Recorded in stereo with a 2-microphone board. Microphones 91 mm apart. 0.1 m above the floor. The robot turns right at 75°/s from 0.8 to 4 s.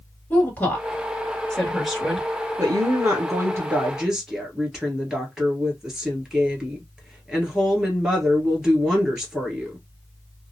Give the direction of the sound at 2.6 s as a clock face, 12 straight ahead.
4 o'clock.